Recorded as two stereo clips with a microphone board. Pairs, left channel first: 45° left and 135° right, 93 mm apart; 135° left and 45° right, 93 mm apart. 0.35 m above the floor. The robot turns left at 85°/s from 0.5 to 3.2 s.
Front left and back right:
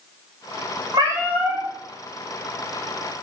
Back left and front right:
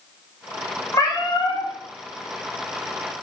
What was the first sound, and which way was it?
A cat meowing, 170° right.